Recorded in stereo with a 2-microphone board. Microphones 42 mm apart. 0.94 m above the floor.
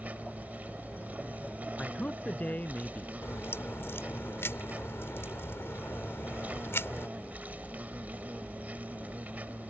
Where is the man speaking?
40° left (ahead or behind).